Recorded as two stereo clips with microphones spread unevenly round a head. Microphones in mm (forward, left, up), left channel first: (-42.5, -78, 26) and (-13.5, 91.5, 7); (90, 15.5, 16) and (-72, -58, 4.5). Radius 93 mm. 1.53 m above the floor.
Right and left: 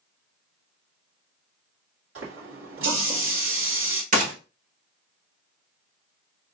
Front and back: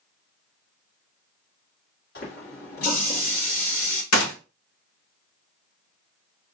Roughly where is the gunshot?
Ahead left.